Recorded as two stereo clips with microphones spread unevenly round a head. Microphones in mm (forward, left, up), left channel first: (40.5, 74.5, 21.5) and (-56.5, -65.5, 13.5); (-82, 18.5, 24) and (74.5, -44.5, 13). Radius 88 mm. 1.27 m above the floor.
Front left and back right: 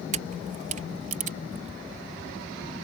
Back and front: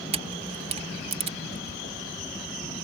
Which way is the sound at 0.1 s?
75° right.